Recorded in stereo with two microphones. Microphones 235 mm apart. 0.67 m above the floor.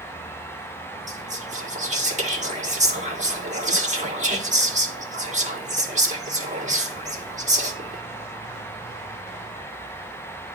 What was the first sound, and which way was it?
Whispering, 30° right (ahead or behind).